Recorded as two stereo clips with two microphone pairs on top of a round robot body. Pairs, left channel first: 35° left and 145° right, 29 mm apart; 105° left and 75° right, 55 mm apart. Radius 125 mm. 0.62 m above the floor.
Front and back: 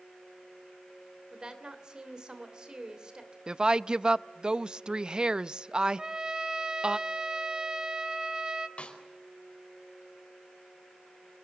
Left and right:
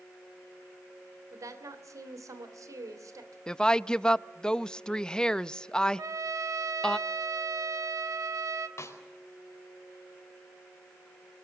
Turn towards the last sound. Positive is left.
turn(degrees=75)